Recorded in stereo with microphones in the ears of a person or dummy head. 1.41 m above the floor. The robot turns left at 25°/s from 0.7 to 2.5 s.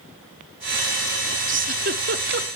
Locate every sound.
1.5 s a giggle: 40° right (ahead or behind), 0.7 m; by 2.5 s 60° right (ahead or behind), 0.7 m